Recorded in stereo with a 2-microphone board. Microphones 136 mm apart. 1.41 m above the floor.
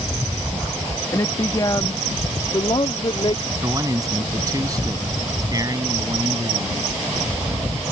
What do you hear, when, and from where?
1.1 s a woman speaking: 25° left (ahead or behind); by 3.4 s 45° left (ahead or behind)
3.6 s a man speaking: 30° right (ahead or behind)